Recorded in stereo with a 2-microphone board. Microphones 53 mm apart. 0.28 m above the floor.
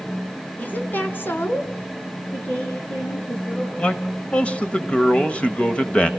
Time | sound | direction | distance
0.6 | a woman speaking | 35° left (ahead or behind) | 3 m
2.3 | a woman speaking | 25° left (ahead or behind) | 4.5 m
3.8 | a man speaking | 20° left (ahead or behind) | 1.2 m